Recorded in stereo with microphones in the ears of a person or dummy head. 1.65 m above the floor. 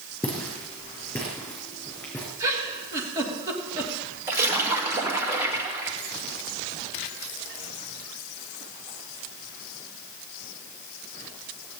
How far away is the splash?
About 2.0 m.